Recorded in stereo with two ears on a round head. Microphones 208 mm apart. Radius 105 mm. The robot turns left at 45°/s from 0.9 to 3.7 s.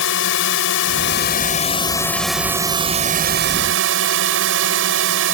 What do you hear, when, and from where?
0.0 s a drone: 65° left; by 5.3 s 65° right